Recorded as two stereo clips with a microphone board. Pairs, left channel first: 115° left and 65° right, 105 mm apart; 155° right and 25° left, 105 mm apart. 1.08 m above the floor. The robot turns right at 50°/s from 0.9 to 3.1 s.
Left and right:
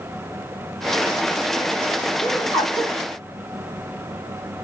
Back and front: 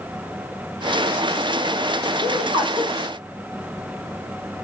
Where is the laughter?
Straight ahead, 2 m; by 2.9 s 35° left, 2 m.